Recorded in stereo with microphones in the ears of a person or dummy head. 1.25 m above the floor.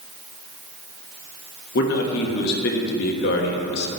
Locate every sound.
1.8 s a man speaking: 55° left (ahead or behind), 1.2 m